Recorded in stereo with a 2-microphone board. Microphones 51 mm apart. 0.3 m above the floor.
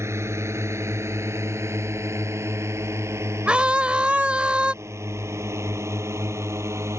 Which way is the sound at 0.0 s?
60° right (ahead or behind).